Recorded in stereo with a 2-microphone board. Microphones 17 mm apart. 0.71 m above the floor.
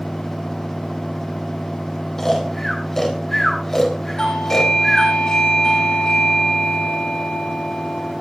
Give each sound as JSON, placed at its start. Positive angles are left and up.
{"t": 2.2, "sound": "snoring", "side_deg": 25, "distance_m": 3.5}
{"t": 4.2, "sound": "a doorbell", "side_deg": 55, "distance_m": 8.0}